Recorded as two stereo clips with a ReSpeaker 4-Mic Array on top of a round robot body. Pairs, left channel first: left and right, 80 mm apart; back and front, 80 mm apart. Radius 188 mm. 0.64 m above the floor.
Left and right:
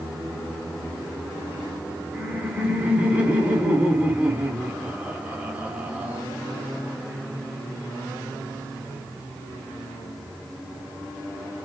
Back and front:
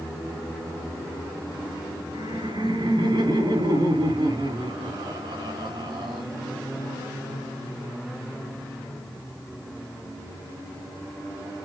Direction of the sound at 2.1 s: 15° right.